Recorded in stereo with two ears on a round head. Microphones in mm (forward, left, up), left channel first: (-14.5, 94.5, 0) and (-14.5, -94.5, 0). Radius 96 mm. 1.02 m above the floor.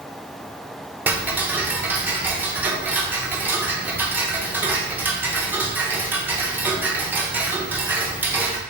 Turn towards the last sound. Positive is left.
turn(degrees=-10)  # may be behind; listen again after turning